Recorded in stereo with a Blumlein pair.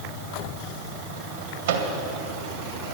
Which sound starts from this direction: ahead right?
A microwave, at 1.7 s.